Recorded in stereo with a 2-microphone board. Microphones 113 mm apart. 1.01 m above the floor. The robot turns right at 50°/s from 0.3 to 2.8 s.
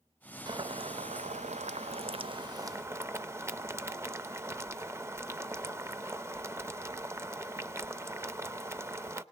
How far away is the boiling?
About 0.5 m.